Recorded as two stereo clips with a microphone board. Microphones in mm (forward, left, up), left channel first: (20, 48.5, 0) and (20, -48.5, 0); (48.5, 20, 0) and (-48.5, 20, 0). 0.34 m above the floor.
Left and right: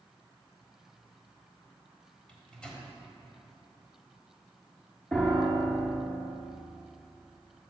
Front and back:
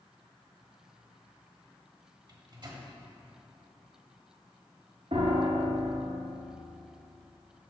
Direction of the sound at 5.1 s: 170° left.